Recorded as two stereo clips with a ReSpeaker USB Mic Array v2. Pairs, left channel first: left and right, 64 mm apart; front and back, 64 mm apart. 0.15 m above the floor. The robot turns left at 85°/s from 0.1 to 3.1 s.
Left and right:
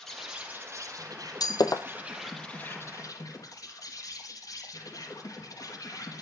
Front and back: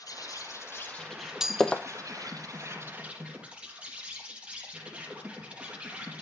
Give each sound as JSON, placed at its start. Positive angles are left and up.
{"t": 0.0, "sound": "an insect", "azimuth_deg": 5, "distance_m": 5.0}
{"t": 1.4, "sound": "breaking glass", "azimuth_deg": 100, "distance_m": 1.3}